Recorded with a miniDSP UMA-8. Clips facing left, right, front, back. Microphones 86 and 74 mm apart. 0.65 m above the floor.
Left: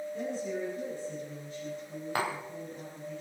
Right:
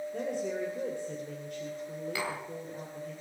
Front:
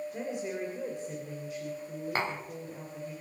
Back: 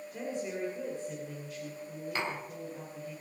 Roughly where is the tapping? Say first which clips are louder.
Left 5 dB, front 3 dB; ahead left.